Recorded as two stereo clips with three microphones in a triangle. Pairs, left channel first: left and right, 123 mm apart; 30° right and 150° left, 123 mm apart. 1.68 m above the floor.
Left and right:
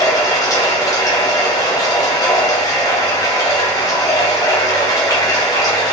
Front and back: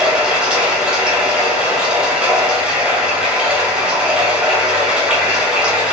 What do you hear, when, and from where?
0.0 s running water: 75° left, 0.8 m